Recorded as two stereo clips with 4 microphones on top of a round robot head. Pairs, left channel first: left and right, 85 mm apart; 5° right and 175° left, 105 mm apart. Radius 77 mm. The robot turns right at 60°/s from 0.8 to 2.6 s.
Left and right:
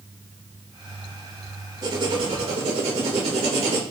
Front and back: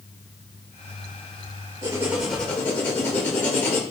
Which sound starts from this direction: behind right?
Writing, at 1.8 s.